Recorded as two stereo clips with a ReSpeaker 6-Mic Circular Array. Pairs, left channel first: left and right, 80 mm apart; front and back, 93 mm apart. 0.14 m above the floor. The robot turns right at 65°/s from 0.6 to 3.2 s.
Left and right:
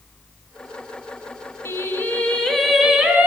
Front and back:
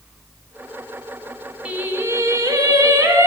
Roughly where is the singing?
Left.